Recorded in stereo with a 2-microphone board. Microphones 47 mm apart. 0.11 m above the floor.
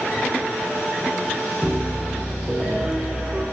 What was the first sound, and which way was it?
A piano, 20° right (ahead or behind).